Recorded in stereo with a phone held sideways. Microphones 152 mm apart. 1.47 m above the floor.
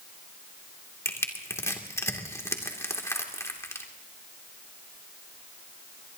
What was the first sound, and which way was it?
Crushing, 20° left (ahead or behind).